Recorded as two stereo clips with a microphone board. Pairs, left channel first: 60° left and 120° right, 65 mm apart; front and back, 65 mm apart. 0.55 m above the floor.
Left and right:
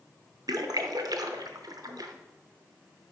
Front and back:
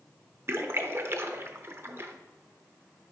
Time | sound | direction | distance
0.5 | a splash | 130° right | 0.6 m